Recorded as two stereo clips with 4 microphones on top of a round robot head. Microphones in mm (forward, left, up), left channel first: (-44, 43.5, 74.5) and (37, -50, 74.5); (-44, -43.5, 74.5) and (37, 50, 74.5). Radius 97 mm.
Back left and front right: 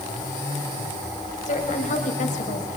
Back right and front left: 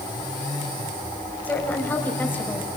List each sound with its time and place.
1.4 s a woman speaking: 155° left, 5 m